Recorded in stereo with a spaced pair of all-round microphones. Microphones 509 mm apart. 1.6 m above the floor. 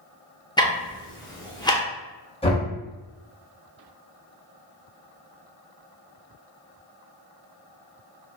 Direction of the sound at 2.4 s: 10° left (ahead or behind).